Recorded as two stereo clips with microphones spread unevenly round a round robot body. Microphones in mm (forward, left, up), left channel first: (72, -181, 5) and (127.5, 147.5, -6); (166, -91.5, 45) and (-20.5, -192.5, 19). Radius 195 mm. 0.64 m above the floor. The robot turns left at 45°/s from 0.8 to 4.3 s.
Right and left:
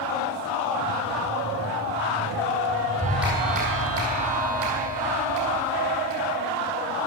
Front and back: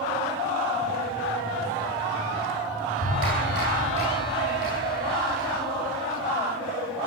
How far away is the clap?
About 5 m.